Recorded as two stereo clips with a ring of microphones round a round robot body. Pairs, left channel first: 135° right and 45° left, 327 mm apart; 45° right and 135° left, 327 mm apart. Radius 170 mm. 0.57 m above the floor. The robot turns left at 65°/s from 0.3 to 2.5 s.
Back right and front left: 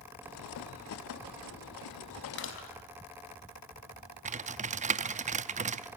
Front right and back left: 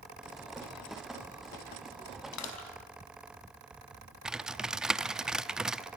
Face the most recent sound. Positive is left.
turn(degrees=50)